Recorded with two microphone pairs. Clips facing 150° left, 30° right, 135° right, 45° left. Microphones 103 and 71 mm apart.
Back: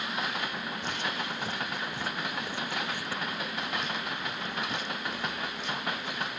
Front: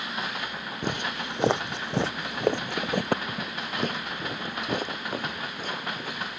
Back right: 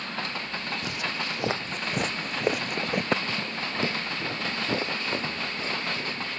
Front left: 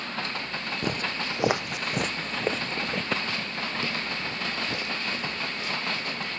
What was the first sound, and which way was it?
Footsteps, straight ahead.